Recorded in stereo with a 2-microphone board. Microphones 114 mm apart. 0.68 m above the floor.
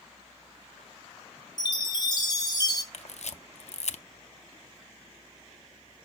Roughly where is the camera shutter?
Left.